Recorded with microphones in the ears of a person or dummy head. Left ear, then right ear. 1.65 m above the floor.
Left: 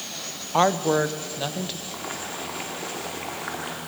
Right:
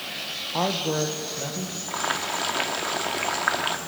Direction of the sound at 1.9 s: 65° right (ahead or behind).